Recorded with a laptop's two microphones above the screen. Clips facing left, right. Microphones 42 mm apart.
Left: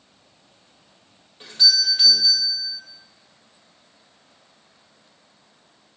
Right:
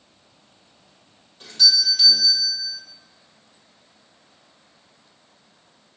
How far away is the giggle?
No giggle in this recording.